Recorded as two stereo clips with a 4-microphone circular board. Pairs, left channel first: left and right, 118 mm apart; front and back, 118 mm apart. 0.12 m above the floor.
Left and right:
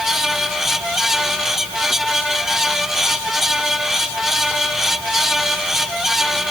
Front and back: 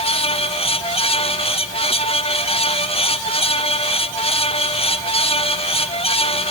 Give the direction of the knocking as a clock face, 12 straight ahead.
I don't hear knocking.